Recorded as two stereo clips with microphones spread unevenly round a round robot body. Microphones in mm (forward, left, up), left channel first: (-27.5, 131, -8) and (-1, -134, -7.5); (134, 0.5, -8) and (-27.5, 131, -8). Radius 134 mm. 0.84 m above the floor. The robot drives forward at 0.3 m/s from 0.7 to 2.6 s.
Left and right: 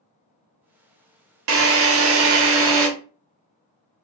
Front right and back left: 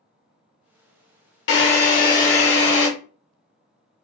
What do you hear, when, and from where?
1.5 s a drill: 60° right, 0.8 m; by 2.9 s 95° right, 0.7 m